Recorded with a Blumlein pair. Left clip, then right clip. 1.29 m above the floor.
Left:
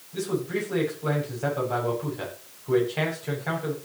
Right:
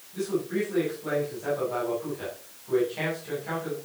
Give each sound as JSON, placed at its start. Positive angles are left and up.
{"t": 0.1, "sound": "a man speaking", "azimuth_deg": 65, "distance_m": 8.0}